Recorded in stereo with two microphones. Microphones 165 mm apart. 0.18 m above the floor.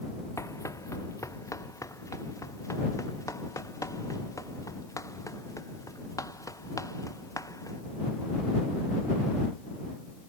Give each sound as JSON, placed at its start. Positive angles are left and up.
{"t": 0.4, "sound": "running footsteps", "side_deg": 20}